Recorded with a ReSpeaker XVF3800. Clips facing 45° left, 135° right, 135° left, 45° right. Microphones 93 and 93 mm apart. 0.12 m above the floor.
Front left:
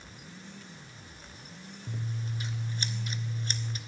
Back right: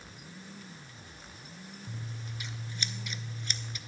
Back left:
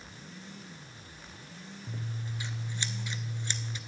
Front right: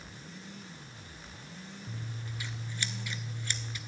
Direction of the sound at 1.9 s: 80° left.